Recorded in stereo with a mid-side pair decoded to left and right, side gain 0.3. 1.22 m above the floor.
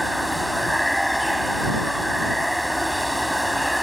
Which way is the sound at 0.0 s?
5° right.